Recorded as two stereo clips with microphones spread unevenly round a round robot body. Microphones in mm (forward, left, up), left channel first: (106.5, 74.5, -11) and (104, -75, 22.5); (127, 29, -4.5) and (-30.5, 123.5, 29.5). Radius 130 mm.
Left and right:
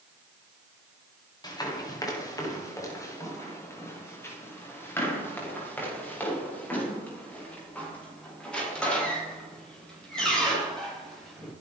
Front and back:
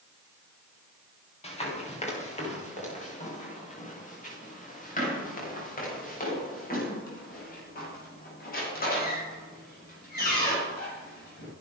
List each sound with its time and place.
1.4 s running footsteps: 25° left, 8.5 m; by 11.5 s straight ahead, 16 m